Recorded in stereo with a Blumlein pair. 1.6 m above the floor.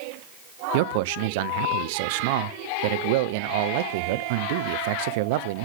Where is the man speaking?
50° right, 0.6 m.